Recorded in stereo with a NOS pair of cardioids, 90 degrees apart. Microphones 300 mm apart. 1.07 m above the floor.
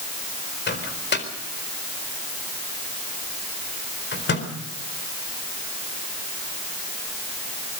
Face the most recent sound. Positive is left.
turn(degrees=35)